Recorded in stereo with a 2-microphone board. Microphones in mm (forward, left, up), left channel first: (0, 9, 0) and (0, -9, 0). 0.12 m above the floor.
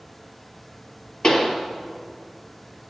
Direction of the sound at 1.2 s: 35° left (ahead or behind).